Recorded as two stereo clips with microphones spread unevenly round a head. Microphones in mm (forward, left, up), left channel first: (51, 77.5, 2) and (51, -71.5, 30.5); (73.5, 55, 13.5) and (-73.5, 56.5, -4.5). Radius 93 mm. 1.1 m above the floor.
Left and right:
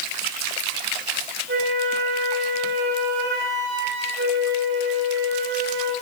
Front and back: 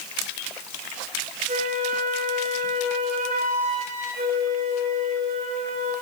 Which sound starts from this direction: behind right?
A flute, at 1.5 s.